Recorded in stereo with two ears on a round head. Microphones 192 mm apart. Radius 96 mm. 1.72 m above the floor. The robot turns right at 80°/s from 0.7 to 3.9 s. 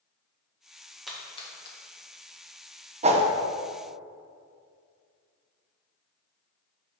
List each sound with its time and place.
1.1 s a splash: centre (ahead or behind), 1.2 m; by 1.8 s 55° left (ahead or behind), 1.2 m
3.0 s a whoosh: 30° right (ahead or behind), 0.7 m